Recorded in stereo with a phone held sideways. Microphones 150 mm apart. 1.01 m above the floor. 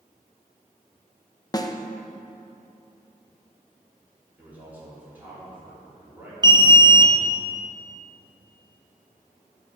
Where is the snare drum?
25° left (ahead or behind), 0.5 m.